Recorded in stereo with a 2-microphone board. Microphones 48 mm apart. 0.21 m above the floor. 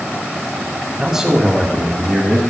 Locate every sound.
1.0 s a man speaking: 15° right (ahead or behind), 1.4 m; by 2.4 s 25° left (ahead or behind), 1.8 m